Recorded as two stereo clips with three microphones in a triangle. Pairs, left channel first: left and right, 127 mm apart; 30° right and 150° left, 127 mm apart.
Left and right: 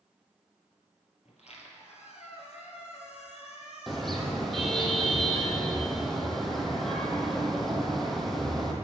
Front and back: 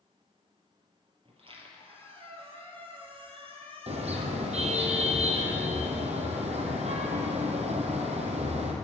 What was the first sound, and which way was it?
A squeak, 115° left.